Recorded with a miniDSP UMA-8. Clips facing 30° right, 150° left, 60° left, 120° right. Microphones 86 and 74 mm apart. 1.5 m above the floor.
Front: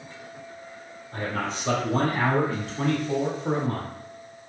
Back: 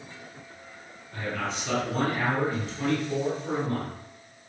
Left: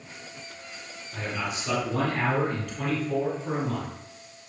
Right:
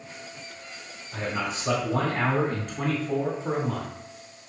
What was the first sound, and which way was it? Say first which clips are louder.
A man speaking: front 2 dB, right 2 dB; 60° right.